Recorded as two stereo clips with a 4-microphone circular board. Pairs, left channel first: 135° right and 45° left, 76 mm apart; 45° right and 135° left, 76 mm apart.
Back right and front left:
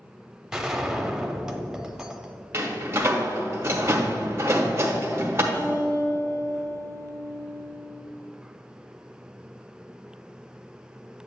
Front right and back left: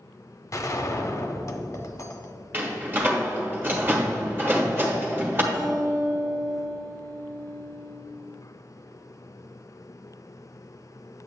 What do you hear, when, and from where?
0.5 s a gunshot: 35° right, 0.7 m
2.5 s a door slam: 85° left, 1.1 m
5.5 s a guitar: 165° left, 1.5 m